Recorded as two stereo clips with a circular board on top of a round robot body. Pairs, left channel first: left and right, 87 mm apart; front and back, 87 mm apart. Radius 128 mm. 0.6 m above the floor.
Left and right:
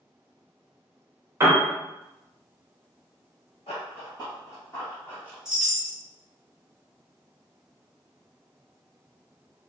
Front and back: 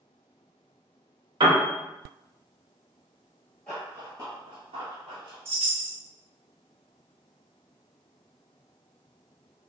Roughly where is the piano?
Behind right.